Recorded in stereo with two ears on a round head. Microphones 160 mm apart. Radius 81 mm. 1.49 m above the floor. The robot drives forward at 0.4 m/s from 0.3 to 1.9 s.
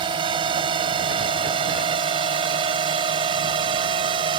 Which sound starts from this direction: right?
A drone, at 0.0 s.